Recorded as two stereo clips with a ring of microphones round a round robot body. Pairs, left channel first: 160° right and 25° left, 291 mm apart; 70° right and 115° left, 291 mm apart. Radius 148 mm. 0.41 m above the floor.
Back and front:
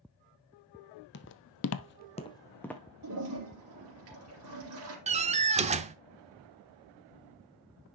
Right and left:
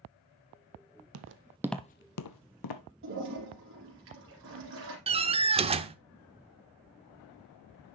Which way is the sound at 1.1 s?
150° left.